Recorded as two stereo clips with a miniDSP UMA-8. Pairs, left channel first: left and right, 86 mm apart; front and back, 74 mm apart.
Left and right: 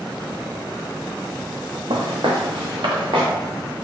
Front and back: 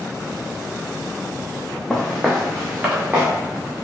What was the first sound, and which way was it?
Footsteps, 80° right.